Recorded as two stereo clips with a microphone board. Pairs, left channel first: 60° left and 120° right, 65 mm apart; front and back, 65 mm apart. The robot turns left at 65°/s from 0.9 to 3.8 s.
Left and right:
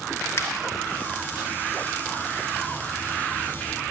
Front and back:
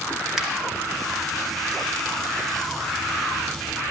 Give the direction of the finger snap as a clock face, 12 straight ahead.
9 o'clock.